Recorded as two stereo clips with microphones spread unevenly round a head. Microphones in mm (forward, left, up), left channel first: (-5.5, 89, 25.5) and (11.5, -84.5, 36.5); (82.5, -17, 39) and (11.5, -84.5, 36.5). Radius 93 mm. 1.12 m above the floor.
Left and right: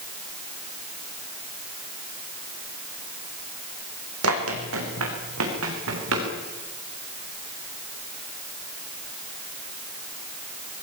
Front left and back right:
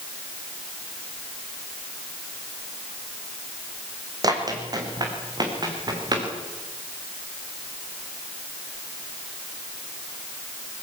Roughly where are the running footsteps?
Right.